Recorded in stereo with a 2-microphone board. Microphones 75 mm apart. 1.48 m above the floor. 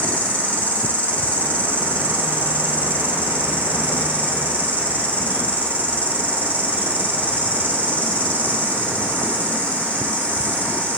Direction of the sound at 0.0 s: 20° left (ahead or behind).